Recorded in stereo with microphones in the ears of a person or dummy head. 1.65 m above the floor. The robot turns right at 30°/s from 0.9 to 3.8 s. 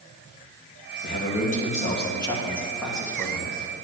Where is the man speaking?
120° left, 3 m; by 3.5 s 165° right, 3 m.